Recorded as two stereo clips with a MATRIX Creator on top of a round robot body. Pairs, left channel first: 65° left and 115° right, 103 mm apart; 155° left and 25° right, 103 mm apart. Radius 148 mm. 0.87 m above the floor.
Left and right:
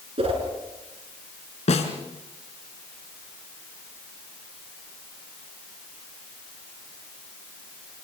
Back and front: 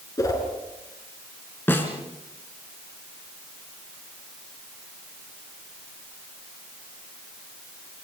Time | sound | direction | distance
0.2 | a whoosh | 145° right | 4.5 m
1.7 | a snare drum | 85° left | 3 m